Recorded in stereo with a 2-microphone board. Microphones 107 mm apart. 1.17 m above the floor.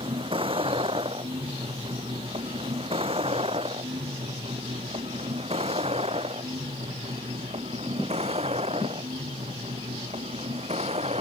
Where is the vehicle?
55° right (ahead or behind); by 11.2 s 75° right (ahead or behind).